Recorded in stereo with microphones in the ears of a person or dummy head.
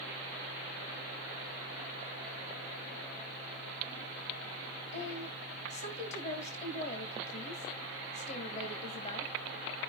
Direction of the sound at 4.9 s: 40° left (ahead or behind).